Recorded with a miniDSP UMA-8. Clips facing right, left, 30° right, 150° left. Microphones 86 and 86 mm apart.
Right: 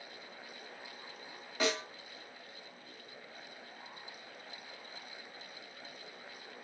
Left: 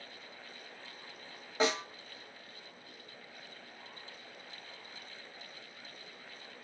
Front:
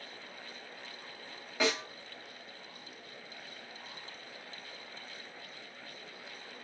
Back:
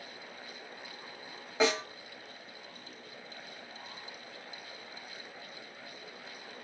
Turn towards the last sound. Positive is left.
turn(degrees=100)